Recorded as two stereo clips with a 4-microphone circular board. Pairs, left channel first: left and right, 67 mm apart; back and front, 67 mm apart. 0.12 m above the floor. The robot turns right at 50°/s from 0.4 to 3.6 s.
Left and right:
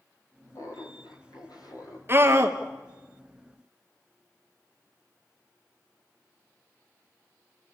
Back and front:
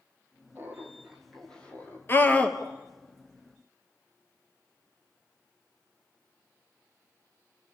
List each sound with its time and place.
0.6 s laughter: 50° left, 5 m; by 2.0 s 125° left, 5 m
2.1 s a scream: 135° right, 2 m; by 2.6 s 110° right, 2 m